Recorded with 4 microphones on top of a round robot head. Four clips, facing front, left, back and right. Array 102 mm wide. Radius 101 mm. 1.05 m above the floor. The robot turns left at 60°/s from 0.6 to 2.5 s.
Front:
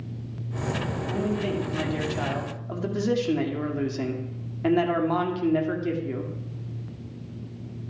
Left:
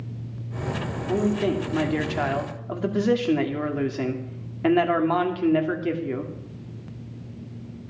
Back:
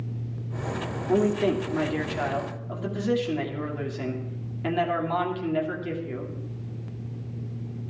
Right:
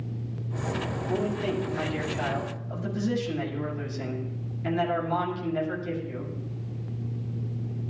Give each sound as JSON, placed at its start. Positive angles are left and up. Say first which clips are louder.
{"t": 1.1, "sound": "a man speaking", "louder": "left 6 dB, back 6 dB", "azimuth_deg": 155, "distance_m": 2.5}